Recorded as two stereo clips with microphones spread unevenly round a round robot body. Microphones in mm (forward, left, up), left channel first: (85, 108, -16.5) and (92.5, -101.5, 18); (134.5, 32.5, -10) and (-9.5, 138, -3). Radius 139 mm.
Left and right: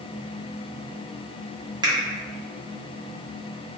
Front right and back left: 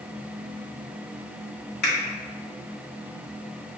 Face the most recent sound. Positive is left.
turn(degrees=-15)